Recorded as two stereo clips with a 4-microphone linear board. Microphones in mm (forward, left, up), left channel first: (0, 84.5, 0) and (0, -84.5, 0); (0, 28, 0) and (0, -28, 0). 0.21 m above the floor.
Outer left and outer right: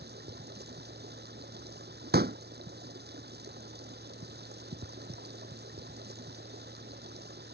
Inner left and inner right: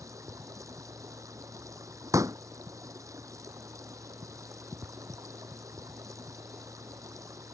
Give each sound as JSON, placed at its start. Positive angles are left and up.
{"t": 0.0, "sound": "running water", "side_deg": -70}
{"t": 2.1, "sound": "a pop", "side_deg": -70}